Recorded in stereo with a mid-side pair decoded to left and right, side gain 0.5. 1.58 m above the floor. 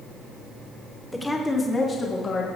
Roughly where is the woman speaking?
Ahead.